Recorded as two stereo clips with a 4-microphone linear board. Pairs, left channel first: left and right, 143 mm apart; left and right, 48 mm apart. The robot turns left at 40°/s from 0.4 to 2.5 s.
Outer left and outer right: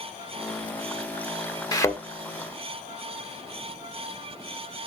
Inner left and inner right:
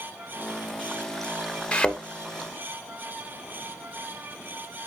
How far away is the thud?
About 0.8 m.